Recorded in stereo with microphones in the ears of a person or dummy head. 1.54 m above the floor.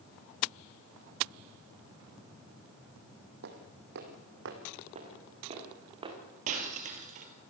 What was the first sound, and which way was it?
Footsteps, 50° right (ahead or behind).